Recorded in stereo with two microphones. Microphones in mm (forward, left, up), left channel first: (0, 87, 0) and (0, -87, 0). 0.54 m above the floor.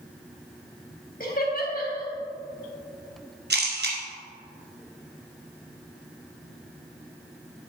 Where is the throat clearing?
No throat clearing in this recording.